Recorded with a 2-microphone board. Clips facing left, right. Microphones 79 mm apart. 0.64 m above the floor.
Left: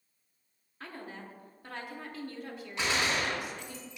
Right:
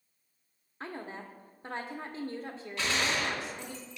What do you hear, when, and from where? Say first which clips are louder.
0.8 s a woman speaking: right 3 dB; 30° right (ahead or behind), 1.0 m
2.8 s a gunshot: left 1 dB; 25° left (ahead or behind), 2.5 m